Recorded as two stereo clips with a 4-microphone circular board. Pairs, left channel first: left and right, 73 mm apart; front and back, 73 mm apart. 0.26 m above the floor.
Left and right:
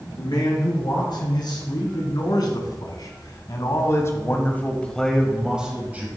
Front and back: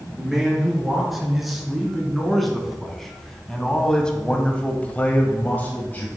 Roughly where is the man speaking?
Left.